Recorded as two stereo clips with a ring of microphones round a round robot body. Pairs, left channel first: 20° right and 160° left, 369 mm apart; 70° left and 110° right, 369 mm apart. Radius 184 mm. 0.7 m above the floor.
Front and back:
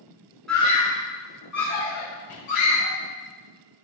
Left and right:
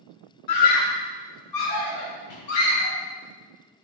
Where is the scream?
65° left, 0.7 m; by 3.0 s 20° left, 4 m.